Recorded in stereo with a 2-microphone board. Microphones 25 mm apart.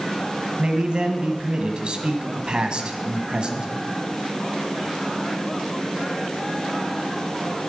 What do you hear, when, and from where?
0.6 s a man speaking: 40° right (ahead or behind), 1.2 m